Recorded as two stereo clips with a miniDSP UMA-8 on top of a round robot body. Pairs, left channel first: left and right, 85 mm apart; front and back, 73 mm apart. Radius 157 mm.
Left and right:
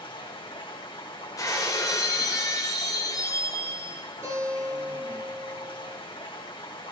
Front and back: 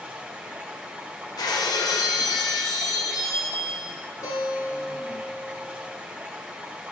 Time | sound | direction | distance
0.0 | running water | 105° left | 2.5 m
1.4 | breaking glass | 35° left | 0.9 m
4.2 | a guitar | 35° right | 6 m